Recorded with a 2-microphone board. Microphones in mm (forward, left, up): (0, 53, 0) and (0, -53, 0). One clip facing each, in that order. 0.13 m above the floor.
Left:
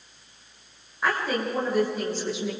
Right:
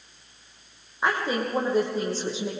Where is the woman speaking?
20° right (ahead or behind), 6 m; by 2.5 s 35° right (ahead or behind), 6 m.